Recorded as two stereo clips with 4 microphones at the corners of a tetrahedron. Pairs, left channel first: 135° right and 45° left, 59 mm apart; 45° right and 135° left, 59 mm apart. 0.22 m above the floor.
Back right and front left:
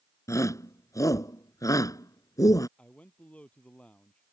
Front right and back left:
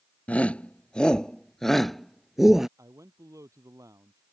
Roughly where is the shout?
Right.